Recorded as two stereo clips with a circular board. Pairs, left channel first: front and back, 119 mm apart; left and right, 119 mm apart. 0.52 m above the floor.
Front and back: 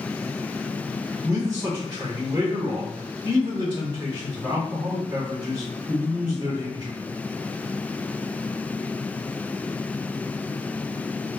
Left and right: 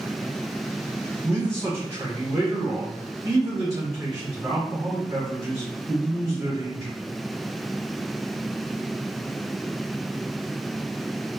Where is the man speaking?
145° right, 1.5 m.